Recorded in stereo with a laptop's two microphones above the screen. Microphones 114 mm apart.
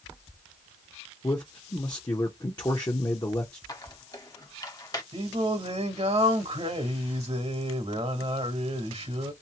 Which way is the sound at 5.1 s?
55° right (ahead or behind).